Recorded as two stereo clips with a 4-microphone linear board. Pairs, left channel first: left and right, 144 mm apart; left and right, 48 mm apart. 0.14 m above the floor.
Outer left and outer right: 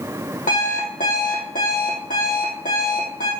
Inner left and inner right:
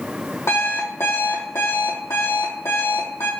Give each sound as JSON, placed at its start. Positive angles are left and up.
{"t": 0.5, "sound": "an alarm clock", "side_deg": 70, "distance_m": 2.5}